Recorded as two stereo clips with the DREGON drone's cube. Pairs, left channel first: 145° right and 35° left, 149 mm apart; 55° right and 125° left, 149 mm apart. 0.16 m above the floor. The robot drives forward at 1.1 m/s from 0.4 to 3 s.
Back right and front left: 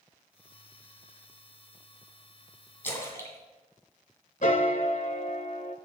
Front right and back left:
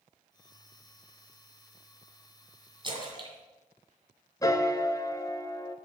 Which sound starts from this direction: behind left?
A splash, at 2.8 s.